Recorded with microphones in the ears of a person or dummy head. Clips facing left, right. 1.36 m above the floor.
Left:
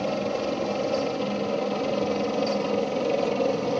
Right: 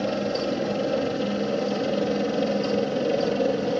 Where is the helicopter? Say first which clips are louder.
Right 1 dB; 15° right (ahead or behind); by 3.8 s 10° right (ahead or behind).